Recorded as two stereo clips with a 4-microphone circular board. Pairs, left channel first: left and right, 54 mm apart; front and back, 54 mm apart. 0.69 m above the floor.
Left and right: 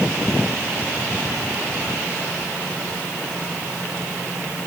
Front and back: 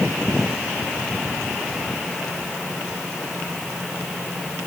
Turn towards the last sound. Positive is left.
No sound to turn to.